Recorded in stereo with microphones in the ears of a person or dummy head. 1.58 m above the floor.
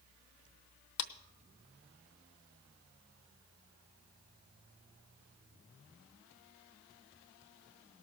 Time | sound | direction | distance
1.0 | a clap | 60° left (ahead or behind) | 0.8 m